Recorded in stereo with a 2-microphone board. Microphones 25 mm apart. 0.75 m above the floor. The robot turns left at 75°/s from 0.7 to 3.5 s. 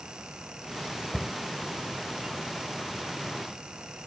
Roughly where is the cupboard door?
Centre.